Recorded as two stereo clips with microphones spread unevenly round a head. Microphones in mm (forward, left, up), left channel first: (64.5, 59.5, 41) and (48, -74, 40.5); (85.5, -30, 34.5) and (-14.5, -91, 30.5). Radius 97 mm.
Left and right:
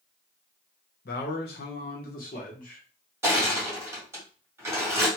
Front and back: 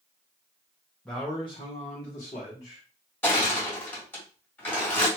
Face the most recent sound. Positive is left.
turn(degrees=-35)